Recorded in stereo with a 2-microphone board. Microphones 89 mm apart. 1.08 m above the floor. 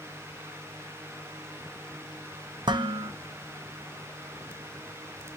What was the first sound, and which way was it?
Dishes clattering, 55° right (ahead or behind).